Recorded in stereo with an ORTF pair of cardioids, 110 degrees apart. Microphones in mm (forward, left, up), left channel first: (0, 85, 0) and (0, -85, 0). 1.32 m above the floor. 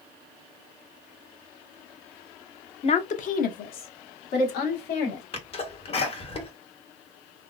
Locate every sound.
2.8 s a woman speaking: 35° left, 0.6 m; by 5.2 s 75° left, 1.7 m
5.3 s a sneeze: 35° left, 1.2 m